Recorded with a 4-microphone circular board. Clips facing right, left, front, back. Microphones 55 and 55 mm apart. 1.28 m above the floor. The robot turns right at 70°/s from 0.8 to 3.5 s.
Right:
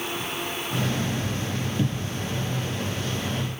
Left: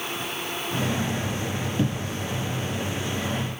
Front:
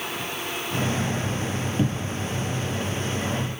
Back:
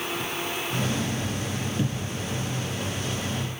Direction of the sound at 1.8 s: 35° left.